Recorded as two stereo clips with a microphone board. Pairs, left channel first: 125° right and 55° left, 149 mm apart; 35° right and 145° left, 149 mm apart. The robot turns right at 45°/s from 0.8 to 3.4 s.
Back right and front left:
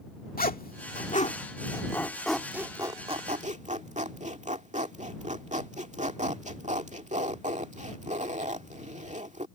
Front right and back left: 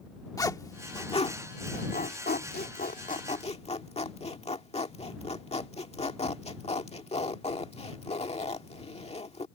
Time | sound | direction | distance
0.4 | a zipper | 100° right | ?